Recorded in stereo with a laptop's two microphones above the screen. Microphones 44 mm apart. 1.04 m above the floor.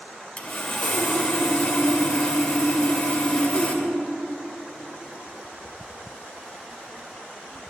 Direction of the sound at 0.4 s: 30° left (ahead or behind).